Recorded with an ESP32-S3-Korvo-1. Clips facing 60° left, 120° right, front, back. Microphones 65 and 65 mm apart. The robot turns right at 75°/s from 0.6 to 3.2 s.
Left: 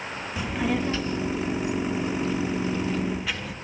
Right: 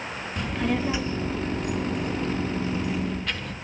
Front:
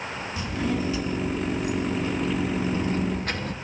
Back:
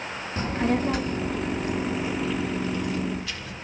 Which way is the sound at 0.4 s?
145° left.